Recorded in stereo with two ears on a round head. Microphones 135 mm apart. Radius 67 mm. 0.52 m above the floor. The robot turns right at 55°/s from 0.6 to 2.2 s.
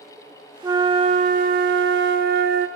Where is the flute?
160° right, 0.6 m; by 2.7 s 75° right, 0.6 m.